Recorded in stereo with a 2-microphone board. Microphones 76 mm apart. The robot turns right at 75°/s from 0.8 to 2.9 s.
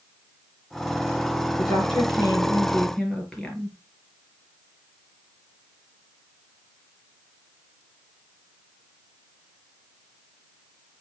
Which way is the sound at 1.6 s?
75° left.